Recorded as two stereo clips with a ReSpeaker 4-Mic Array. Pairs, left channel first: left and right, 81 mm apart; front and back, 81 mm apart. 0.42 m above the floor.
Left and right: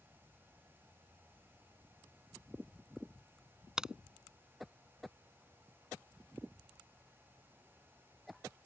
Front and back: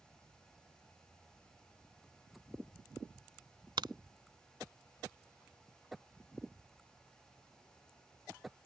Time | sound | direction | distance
3.8 | a crack | 170° right | ?